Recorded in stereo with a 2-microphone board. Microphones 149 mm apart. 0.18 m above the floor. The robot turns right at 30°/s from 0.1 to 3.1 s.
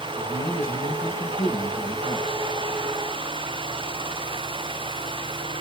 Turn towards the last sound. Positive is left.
turn(degrees=165)